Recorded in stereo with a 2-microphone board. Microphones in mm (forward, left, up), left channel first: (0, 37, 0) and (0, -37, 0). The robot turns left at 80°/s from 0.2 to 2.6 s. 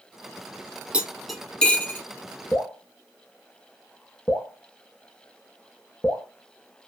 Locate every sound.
0.9 s cutlery clinking: 15° right (ahead or behind), 0.7 m; by 2.0 s 30° left (ahead or behind), 0.7 m
2.5 s dripping: 35° left (ahead or behind), 0.6 m; by 6.3 s 40° left (ahead or behind), 0.6 m